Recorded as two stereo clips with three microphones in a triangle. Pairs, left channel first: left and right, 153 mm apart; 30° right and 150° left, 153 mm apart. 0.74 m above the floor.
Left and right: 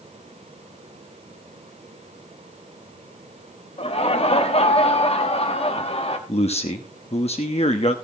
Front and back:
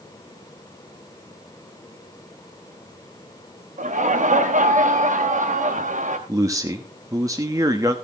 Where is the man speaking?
90° left, 1.1 m.